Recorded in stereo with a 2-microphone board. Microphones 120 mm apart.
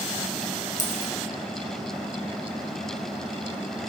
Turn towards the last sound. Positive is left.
turn(degrees=80)